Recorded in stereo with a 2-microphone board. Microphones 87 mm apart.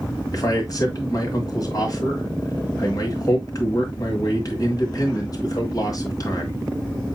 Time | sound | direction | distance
0.3 | a man speaking | 45° left (ahead or behind) | 1.9 m